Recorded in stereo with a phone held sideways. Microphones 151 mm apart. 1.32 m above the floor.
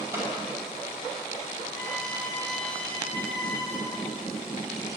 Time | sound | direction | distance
0.1 | a clap | 15° right (ahead or behind) | 6 m
1.7 | a violin | 5° left (ahead or behind) | 4.5 m